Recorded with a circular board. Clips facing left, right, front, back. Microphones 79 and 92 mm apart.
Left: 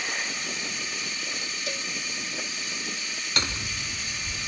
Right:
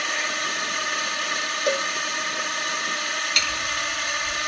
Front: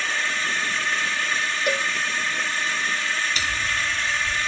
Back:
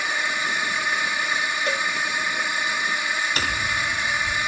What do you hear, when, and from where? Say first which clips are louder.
0.0 s a drone: right 6 dB, back 1 dB; 105° right
1.7 s a cowbell: right 13 dB, front 3 dB; 70° right
3.4 s hammering: right 5 dB, back 1 dB; 145° left